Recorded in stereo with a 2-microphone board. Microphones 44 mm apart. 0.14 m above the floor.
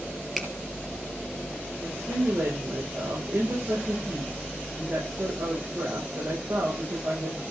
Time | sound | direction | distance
0.4 | a finger snap | centre (ahead or behind) | 3 m
1.8 | a woman speaking | 75° right (ahead or behind) | 9 m